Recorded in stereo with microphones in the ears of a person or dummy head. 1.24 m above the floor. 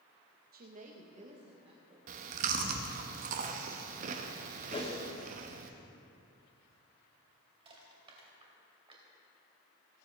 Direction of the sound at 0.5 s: 50° right (ahead or behind).